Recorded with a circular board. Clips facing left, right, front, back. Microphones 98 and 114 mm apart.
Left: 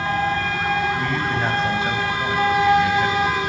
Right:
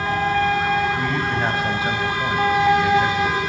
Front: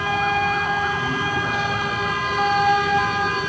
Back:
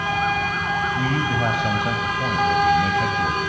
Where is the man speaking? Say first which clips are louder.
Even, back 1 dB; 175° right, 3.5 m.